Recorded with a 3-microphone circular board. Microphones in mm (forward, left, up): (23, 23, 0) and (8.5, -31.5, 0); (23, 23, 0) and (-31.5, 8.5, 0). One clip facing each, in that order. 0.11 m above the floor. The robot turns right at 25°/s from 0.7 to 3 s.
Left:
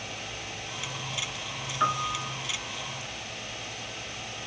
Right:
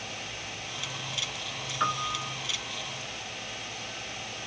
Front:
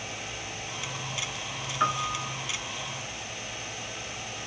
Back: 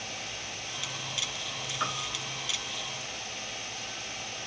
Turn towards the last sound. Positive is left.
turn(degrees=10)